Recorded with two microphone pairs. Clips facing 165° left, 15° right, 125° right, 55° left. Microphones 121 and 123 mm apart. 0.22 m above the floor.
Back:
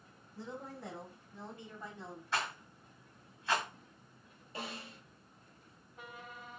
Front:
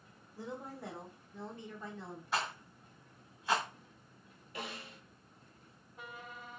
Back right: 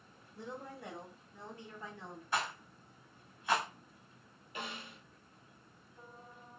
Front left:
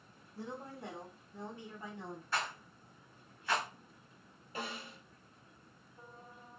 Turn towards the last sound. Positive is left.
turn(degrees=105)